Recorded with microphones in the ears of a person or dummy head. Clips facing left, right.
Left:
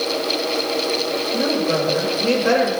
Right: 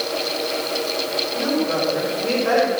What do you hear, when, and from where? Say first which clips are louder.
1.3 s a woman speaking: left 1 dB; 55° left (ahead or behind), 5.5 m